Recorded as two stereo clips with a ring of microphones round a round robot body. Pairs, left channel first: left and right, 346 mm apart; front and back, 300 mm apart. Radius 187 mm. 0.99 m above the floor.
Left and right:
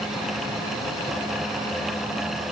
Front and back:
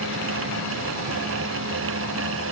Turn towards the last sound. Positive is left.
No sound to turn to.